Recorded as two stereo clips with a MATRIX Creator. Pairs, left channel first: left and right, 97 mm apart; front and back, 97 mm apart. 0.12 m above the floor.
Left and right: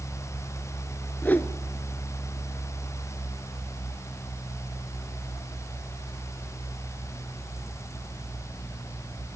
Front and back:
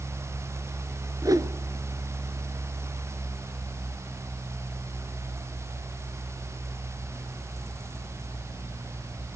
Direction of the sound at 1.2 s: 150° left.